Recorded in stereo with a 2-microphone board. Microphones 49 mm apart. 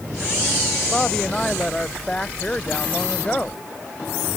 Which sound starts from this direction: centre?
A woman speaking, at 0.9 s.